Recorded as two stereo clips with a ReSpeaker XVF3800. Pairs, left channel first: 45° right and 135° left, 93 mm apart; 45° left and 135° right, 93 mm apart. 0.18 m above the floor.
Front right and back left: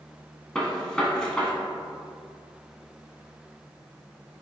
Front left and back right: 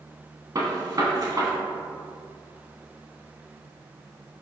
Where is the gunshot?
120° right, 0.7 m.